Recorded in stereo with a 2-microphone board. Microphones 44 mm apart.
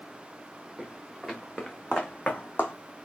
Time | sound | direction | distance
0.8 | footsteps | 5° right (ahead or behind) | 1.8 m